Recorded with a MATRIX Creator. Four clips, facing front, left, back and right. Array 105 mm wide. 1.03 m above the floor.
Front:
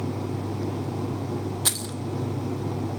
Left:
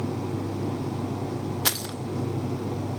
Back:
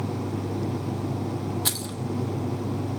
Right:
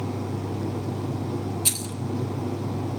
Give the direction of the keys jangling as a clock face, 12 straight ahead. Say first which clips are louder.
Left 3 dB, even; 9 o'clock.